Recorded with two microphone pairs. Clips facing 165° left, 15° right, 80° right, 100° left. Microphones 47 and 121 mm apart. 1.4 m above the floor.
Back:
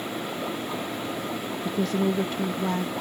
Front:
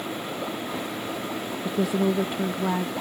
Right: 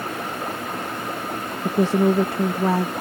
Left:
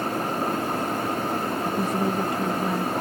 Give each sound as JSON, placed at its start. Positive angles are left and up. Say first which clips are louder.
{"t": 1.6, "sound": "a woman speaking", "louder": "front 2 dB, right 10 dB", "azimuth_deg": -95}